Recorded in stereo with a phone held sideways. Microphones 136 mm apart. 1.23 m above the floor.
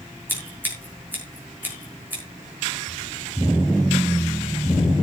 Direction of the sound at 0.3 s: 15° right (ahead or behind).